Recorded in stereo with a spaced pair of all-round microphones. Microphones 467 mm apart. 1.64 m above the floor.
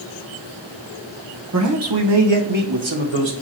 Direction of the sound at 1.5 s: 35° right (ahead or behind).